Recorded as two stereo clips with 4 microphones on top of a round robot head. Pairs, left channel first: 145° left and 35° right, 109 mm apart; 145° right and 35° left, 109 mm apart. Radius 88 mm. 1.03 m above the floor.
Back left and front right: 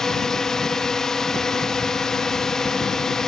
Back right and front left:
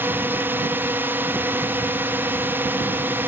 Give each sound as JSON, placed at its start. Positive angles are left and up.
{"t": 0.0, "sound": "a drone", "azimuth_deg": 65}